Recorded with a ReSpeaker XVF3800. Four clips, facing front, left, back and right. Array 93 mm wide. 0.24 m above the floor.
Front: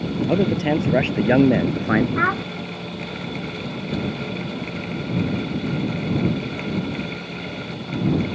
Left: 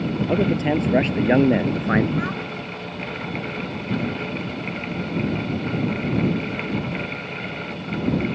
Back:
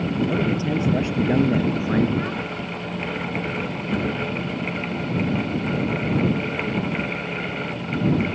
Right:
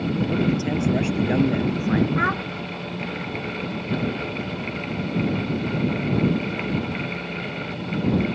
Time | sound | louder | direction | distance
0.3 | a man speaking | left 5 dB, front 3 dB | 40° left | ?
2.2 | a child speaking | right 3 dB, front 6 dB | 25° right | ?